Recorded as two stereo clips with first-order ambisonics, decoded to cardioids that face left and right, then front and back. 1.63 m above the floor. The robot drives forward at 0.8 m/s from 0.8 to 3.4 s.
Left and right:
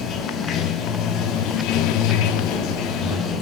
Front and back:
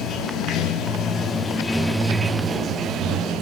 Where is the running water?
45° left, 1.5 m; by 3.4 s 140° left, 1.6 m.